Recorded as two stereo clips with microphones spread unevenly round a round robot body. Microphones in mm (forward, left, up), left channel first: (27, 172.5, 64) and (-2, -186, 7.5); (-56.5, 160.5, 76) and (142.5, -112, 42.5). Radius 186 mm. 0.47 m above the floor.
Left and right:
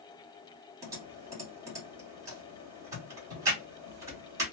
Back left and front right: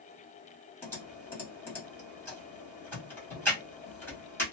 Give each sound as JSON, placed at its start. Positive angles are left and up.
{"t": 0.8, "sound": "typing on a keyboard", "azimuth_deg": -145, "distance_m": 1.5}